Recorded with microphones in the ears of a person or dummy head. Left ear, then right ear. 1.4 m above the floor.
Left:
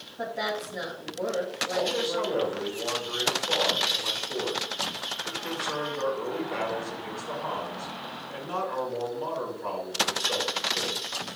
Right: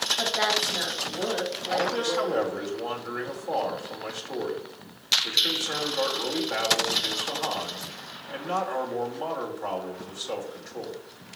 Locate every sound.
0.2 s a woman speaking: 25° right (ahead or behind), 2.5 m
1.7 s a man speaking: 30° right (ahead or behind), 2 m